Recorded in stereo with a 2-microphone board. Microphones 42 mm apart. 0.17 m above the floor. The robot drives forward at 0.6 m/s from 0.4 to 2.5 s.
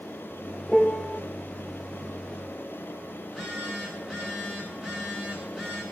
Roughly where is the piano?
Centre.